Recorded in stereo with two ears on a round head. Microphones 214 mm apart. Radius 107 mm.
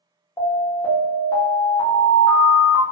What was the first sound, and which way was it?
An alarm, 15° left (ahead or behind).